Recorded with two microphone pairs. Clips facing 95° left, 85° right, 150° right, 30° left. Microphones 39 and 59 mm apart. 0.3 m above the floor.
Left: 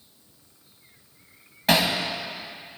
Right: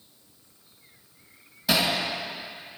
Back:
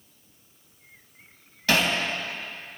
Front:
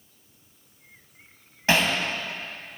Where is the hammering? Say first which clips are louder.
Left 3 dB, front 1 dB; 85° left, 2.0 m.